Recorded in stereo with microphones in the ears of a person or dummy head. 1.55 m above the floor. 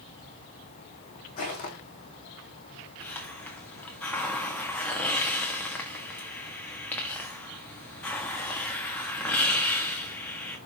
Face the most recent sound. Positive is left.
turn(degrees=5)  # may be behind; listen again after turning